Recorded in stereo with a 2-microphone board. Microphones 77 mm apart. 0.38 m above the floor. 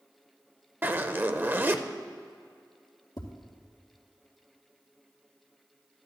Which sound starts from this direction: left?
Tapping, at 3.2 s.